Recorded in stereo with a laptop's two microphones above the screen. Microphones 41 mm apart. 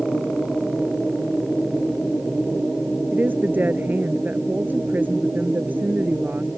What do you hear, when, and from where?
3.1 s a woman speaking: 50° right (ahead or behind)